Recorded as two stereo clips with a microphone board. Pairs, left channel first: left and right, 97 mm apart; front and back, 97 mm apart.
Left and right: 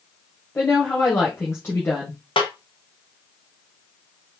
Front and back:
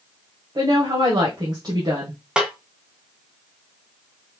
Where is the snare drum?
100° left, 1.3 m.